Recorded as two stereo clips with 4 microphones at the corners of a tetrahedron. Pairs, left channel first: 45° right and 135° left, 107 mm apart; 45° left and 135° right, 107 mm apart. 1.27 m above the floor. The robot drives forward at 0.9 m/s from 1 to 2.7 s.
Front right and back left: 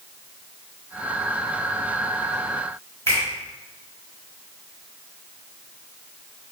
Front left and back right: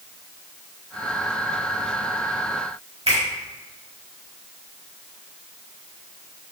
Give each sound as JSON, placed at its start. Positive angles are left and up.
{"t": 3.1, "sound": "a finger snap", "azimuth_deg": -110, "distance_m": 1.3}